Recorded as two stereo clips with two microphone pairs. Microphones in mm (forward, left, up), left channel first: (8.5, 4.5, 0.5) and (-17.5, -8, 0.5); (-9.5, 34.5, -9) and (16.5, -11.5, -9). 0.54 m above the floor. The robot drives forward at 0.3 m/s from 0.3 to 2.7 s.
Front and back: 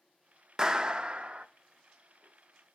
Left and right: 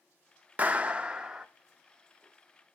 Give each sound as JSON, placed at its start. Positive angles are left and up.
{"t": 0.6, "sound": "a clap", "azimuth_deg": -95, "distance_m": 0.5}